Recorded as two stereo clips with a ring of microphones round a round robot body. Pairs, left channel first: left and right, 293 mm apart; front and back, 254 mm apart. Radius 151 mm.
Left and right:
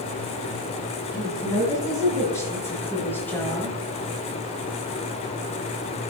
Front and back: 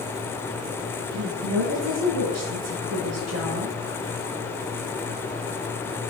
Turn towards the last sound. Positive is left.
turn(degrees=175)